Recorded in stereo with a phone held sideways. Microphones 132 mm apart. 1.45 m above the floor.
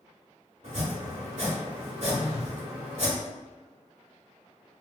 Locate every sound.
0.6 s chopping: 60° right (ahead or behind), 1.5 m
2.1 s a phone buzzing: 50° right (ahead or behind), 0.9 m